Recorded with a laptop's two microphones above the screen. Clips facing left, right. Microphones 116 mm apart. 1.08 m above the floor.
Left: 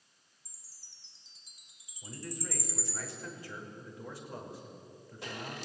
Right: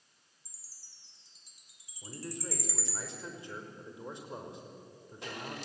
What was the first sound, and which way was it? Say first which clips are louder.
A chime: even; 20° left (ahead or behind).